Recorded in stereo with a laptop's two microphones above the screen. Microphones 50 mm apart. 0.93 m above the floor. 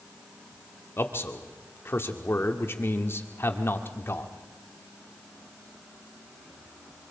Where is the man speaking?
50° left (ahead or behind), 2.0 m.